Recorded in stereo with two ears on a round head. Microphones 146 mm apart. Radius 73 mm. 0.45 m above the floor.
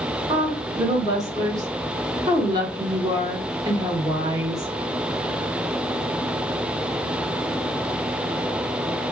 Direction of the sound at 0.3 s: 25° right (ahead or behind).